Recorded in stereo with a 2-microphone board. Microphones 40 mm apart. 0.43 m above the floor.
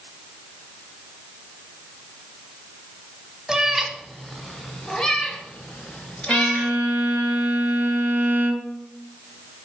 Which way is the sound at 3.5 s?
15° right (ahead or behind).